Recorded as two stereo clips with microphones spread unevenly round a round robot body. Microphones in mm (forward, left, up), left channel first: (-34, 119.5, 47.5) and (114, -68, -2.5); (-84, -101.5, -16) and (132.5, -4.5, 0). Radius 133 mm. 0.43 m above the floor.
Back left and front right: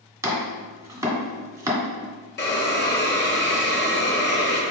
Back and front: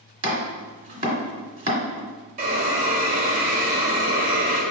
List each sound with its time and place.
0.2 s chopping: 20° right, 1.5 m
2.4 s a hiss: 85° left, 1.0 m